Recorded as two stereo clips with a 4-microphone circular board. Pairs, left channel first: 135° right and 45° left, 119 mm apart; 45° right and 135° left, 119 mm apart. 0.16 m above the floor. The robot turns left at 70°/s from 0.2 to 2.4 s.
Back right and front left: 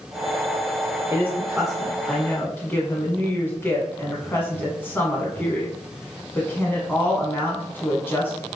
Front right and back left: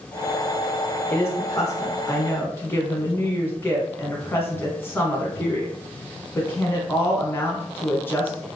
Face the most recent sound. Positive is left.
turn(degrees=-85)